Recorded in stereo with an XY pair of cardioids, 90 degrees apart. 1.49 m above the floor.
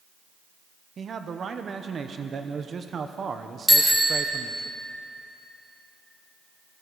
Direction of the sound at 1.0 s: 50° right.